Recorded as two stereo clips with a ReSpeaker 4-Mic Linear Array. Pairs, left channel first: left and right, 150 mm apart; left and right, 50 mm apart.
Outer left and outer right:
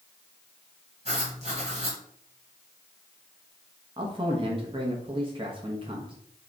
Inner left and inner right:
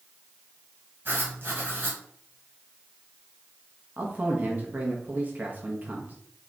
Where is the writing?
50° right (ahead or behind), 1.4 m.